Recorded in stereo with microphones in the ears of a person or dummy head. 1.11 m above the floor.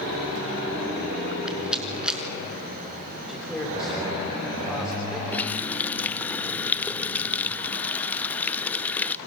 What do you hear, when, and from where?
1.5 s a rattle: 5° right (ahead or behind), 5.5 m
3.3 s a man speaking: 10° left (ahead or behind), 6 m
5.3 s a running tap: 15° left (ahead or behind), 0.6 m